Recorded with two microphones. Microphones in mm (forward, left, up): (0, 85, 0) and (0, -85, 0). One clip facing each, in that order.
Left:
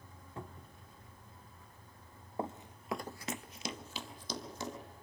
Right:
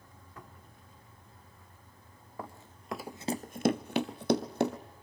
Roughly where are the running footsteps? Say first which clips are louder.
Left 5 dB; left.